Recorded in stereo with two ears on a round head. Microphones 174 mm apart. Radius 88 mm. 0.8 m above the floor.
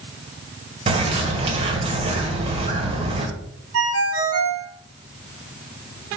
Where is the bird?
30° right (ahead or behind), 1.8 m.